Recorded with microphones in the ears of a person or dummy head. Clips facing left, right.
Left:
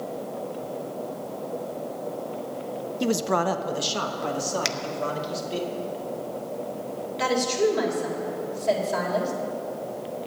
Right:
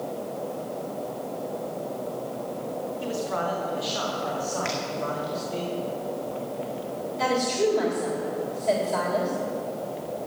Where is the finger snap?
55° left (ahead or behind), 0.7 m.